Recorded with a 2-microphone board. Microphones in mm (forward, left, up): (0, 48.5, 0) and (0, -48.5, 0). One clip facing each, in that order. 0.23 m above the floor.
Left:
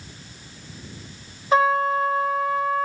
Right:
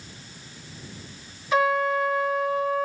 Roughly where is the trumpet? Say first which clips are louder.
Left 3 dB; left.